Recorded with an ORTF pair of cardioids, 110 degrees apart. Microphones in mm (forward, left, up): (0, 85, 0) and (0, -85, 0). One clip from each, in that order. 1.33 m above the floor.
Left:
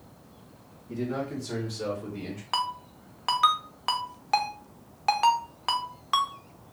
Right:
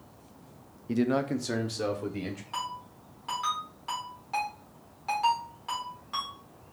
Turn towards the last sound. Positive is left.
turn(degrees=60)